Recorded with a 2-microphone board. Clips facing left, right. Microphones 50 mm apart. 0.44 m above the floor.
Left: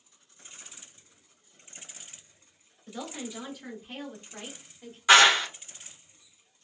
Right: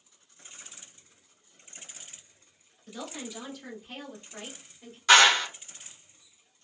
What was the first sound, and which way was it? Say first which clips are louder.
A woman speaking: left 1 dB; 10° left (ahead or behind).